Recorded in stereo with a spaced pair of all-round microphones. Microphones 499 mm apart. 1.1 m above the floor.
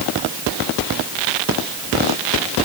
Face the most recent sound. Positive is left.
No sound to turn to.